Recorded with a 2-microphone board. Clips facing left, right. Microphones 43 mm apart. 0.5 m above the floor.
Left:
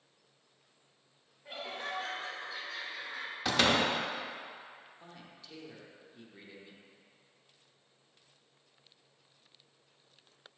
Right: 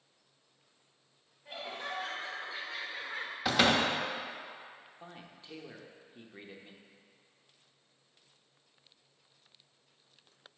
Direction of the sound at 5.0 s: 30° right (ahead or behind).